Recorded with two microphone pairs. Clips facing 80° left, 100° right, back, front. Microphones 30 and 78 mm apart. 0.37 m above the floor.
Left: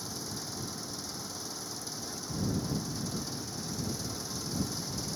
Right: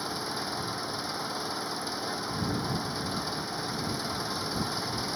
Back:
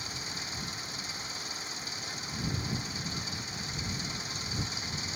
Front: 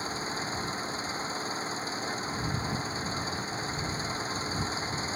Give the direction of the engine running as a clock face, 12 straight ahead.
2 o'clock.